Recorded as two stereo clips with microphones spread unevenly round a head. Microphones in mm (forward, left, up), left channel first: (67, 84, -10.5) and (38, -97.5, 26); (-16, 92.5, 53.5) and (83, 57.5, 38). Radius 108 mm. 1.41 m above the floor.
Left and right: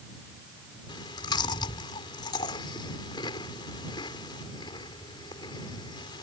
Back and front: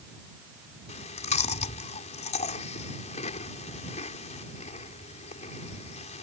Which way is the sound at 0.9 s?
155° left.